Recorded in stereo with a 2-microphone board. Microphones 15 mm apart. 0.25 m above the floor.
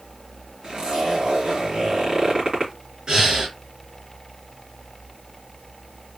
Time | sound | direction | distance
0.6 | a zipper | 60° right (ahead or behind) | 2.5 m
3.1 | breathing | 40° right (ahead or behind) | 3 m